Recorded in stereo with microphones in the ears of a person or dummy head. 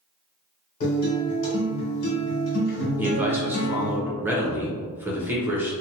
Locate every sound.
0.8 s a guitar: 55° left (ahead or behind), 1.8 m
3.0 s a man speaking: 10° right (ahead or behind), 0.8 m